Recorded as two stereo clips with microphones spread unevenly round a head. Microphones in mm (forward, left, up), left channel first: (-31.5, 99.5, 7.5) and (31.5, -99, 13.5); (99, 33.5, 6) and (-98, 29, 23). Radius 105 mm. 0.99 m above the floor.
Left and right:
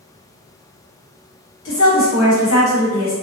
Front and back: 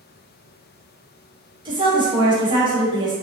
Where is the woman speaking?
115° left, 1.3 m.